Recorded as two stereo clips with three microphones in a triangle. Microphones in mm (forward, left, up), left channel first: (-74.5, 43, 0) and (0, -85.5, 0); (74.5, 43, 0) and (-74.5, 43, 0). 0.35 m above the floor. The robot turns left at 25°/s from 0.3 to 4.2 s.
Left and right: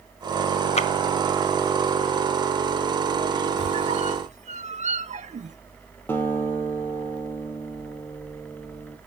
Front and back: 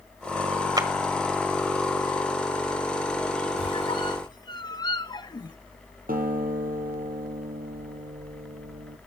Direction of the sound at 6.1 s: 165° right.